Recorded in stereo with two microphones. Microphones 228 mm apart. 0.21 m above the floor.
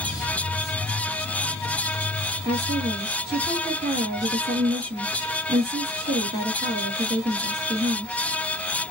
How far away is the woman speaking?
About 1.6 m.